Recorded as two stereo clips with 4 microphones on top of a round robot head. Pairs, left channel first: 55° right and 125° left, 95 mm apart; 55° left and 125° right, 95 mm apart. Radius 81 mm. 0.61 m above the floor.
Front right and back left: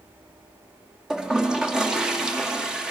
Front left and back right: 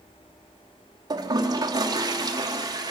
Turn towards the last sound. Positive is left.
turn(degrees=-155)